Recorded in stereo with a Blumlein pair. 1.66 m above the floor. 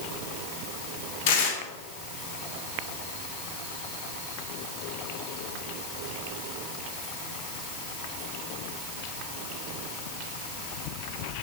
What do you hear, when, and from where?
1.3 s tearing paper: 50° left, 1.3 m